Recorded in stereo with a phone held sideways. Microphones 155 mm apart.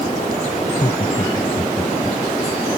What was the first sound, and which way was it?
Laughter, 45° left (ahead or behind).